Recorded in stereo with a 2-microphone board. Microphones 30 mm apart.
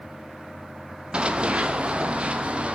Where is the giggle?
No giggle in this recording.